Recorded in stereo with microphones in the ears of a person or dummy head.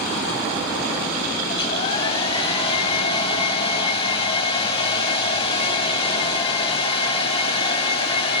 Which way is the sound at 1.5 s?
30° left (ahead or behind).